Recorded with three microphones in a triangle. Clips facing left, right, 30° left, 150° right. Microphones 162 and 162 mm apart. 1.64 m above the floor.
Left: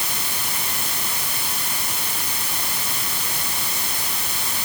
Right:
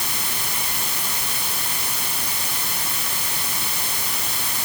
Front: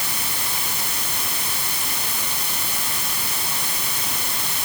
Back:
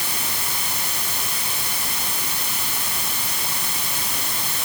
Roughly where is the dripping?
I don't hear dripping.